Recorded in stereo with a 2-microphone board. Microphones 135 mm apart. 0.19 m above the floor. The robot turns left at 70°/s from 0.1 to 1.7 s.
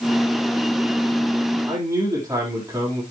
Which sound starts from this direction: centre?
A man speaking, at 1.7 s.